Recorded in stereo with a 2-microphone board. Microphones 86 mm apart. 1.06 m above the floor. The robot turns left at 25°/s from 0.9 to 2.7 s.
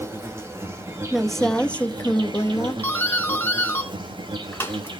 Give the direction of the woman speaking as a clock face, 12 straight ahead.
6 o'clock.